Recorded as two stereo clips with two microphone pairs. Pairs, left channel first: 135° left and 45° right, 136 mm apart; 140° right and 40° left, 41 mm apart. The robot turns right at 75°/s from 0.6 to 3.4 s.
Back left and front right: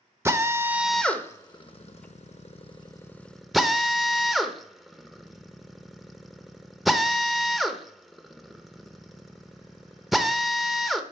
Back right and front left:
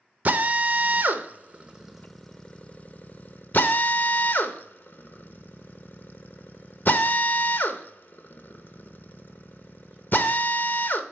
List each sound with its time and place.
0.2 s a drill: 15° left, 0.7 m; by 11.0 s 135° right, 0.7 m